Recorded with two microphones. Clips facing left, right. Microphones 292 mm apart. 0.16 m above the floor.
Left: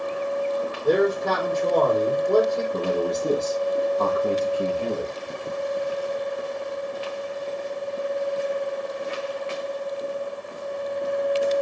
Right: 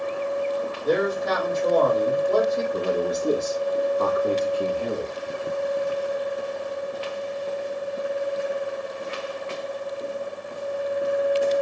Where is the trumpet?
No trumpet in this recording.